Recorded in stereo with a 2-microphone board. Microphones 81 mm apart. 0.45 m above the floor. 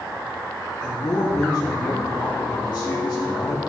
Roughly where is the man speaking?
Left.